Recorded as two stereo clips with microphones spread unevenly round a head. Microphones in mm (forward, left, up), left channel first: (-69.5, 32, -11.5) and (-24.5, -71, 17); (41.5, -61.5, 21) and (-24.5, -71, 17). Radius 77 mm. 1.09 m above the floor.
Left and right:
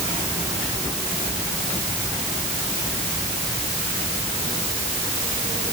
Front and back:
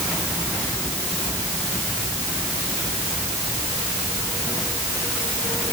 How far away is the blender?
No blender in this recording.